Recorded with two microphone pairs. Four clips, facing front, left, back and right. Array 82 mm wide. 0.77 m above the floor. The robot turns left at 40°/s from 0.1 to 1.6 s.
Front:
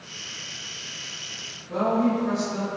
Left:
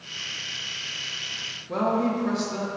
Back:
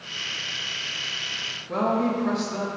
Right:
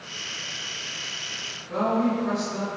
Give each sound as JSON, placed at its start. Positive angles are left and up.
{"t": 1.7, "sound": "a woman speaking", "azimuth_deg": 150, "distance_m": 0.6}